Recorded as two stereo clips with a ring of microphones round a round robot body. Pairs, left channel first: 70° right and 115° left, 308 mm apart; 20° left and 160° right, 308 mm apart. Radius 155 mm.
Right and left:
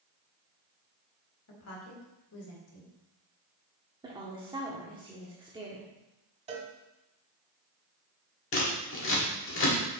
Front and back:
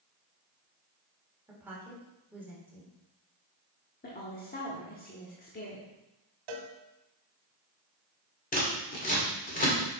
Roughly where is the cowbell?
Behind.